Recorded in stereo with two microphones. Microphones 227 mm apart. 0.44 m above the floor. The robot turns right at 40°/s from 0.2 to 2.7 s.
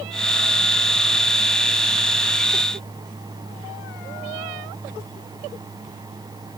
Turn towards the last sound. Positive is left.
No sound to turn to.